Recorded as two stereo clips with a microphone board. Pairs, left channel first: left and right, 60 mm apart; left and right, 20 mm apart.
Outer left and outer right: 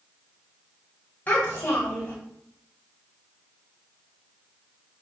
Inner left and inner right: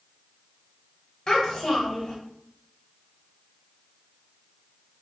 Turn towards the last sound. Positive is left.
turn(degrees=30)  # may be behind; listen again after turning